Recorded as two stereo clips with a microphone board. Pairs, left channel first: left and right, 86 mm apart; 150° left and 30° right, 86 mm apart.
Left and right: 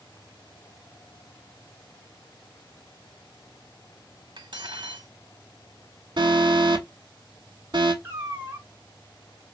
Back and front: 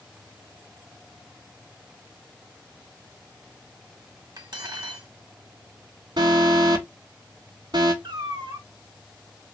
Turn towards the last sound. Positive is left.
turn(degrees=-30)